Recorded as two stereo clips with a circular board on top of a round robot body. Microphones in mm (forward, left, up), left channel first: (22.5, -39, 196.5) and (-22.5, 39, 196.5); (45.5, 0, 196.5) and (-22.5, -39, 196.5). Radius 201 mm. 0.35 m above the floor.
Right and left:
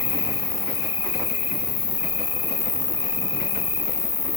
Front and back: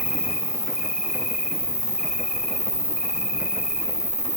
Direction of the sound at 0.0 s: 65° right.